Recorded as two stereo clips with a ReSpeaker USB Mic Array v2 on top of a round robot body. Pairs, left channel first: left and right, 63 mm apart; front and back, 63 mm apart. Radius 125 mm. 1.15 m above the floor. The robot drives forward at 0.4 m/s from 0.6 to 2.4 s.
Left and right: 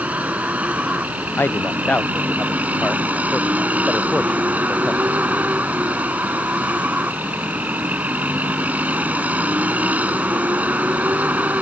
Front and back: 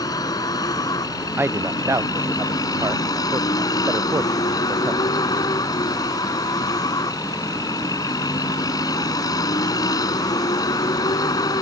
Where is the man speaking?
135° left; by 5.2 s 160° left.